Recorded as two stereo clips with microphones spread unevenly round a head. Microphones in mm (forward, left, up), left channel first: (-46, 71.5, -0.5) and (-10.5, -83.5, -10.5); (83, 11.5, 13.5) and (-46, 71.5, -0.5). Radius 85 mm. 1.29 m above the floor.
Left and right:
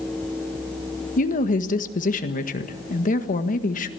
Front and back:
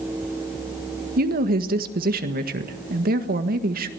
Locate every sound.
1.2 s a woman speaking: 145° left, 1.7 m